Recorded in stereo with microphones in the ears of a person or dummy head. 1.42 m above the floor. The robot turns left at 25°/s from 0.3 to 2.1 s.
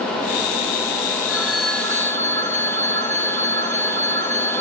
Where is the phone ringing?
5° right (ahead or behind), 2 m; by 4.6 s 15° left (ahead or behind), 2 m.